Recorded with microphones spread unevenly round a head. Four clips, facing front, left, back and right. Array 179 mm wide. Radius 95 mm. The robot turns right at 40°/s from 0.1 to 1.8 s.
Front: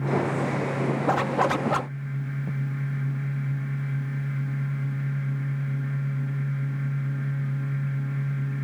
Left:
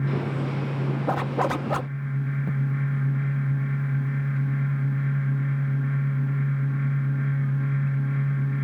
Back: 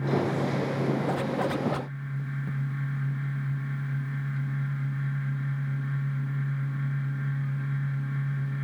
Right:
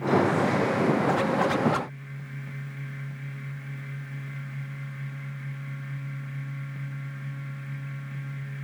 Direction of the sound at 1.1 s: 50° left.